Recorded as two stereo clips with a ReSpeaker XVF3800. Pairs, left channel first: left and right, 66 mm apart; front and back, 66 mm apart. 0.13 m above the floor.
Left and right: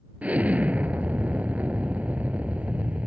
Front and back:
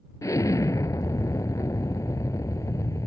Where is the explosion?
25° right.